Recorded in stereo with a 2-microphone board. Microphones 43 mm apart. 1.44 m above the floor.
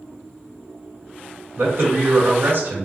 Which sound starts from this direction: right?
A man speaking, at 1.6 s.